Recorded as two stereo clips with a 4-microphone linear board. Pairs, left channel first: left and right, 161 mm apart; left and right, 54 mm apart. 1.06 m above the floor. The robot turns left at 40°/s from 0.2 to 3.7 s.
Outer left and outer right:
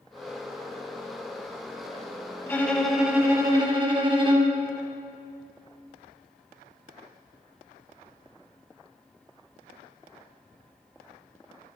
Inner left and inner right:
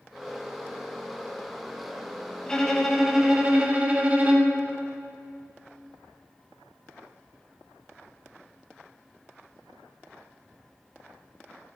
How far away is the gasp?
No gasp in this recording.